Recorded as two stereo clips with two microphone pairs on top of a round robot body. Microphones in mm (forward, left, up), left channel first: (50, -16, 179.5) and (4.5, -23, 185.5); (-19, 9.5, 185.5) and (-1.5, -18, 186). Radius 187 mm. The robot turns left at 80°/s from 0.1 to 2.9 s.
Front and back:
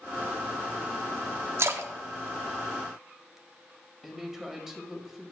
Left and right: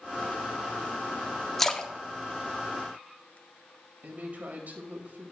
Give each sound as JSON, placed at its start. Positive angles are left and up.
{"t": 1.6, "sound": "a splash", "azimuth_deg": -155, "distance_m": 0.9}
{"t": 4.0, "sound": "a woman speaking", "azimuth_deg": -85, "distance_m": 2.0}